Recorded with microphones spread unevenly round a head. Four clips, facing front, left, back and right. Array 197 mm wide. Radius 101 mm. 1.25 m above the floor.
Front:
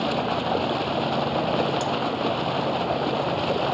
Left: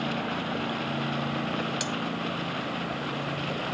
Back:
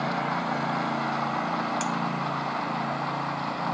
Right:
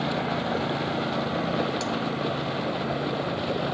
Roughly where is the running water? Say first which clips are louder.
Right 3 dB, front 3 dB; ahead right.